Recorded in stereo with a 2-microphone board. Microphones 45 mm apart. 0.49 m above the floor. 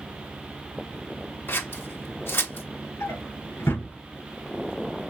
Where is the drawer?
80° left, 3 m.